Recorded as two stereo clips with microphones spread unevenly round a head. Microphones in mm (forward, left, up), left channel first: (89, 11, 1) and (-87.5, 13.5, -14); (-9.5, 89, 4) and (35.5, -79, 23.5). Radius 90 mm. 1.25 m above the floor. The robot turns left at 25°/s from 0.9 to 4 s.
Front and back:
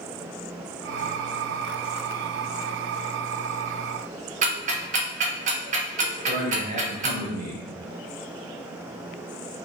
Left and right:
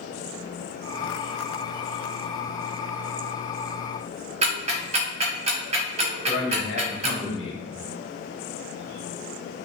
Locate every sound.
4.4 s ticking: 135° right, 1.0 m
6.3 s a man speaking: 135° left, 1.4 m